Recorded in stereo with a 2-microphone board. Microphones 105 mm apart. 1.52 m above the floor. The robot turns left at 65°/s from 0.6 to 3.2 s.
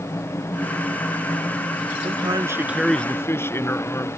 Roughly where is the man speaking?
Behind right.